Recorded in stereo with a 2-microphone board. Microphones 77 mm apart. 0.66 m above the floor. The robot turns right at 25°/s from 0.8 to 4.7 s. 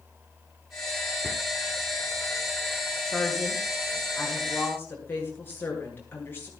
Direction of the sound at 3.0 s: 15° right.